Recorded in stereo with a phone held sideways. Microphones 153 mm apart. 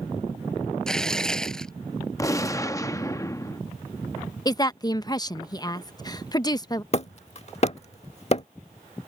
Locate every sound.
0.9 s tearing paper: 5° left (ahead or behind)
2.2 s a gunshot: 20° left (ahead or behind)
4.5 s a woman speaking: 25° left (ahead or behind)
6.9 s hammering: 45° left (ahead or behind)